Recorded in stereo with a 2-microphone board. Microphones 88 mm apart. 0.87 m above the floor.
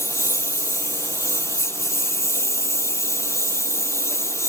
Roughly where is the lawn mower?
Left.